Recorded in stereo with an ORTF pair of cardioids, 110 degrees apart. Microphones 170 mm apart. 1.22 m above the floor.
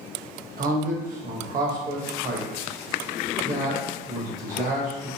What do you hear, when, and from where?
0.6 s a man speaking: 55° right, 1.3 m